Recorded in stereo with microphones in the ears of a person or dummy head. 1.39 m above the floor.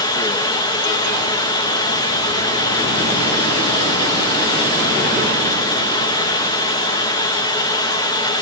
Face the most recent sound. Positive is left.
turn(degrees=20)  # may be behind; listen again after turning